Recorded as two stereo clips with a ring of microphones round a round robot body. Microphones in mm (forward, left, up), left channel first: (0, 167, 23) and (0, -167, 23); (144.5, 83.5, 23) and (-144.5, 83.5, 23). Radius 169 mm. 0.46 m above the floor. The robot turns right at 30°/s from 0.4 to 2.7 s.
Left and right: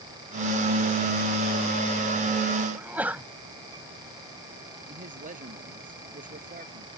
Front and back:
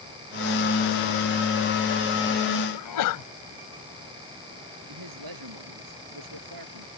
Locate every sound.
2.7 s a sneeze: 5° right
4.9 s a man speaking: 155° right